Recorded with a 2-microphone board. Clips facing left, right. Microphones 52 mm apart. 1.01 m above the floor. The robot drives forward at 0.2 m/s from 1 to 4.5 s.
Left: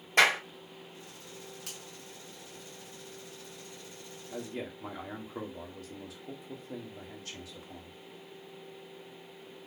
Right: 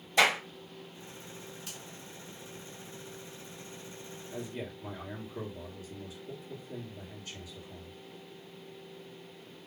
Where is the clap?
60° left (ahead or behind), 3 m.